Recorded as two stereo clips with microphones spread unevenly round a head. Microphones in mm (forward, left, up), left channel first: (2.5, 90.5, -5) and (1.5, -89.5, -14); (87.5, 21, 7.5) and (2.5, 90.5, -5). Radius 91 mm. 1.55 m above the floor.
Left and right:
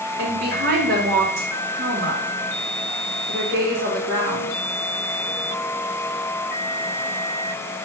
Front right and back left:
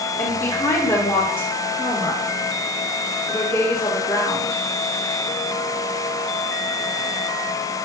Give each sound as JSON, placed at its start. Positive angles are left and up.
{"t": 0.2, "sound": "a woman speaking", "azimuth_deg": -115, "distance_m": 3.0}